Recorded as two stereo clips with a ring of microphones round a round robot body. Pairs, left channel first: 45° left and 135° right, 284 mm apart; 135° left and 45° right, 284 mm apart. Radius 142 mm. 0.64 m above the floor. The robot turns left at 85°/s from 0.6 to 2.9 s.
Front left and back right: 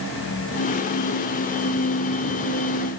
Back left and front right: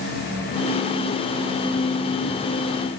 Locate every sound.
Only background noise.